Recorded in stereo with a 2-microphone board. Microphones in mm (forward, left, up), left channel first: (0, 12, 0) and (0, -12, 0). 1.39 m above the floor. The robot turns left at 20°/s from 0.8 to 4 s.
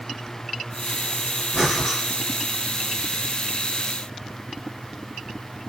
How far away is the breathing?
About 1.3 m.